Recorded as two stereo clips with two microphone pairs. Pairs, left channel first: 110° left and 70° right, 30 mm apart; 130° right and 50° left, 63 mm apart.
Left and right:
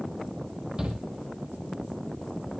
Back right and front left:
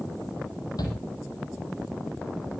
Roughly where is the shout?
Behind right.